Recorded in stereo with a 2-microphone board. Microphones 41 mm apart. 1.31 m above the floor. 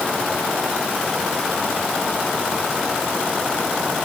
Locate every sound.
Only background noise.